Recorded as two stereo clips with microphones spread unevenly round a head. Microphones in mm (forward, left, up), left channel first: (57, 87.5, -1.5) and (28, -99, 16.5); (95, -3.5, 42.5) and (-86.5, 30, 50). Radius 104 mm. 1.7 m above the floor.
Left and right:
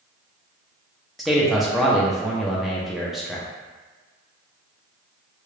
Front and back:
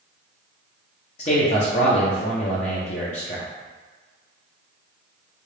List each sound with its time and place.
1.2 s a man speaking: 20° right, 0.6 m